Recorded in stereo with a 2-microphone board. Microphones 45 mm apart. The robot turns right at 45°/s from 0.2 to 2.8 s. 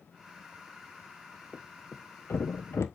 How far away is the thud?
About 1.1 m.